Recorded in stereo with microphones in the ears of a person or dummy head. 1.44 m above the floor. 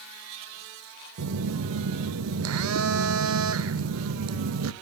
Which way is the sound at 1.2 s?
75° right (ahead or behind).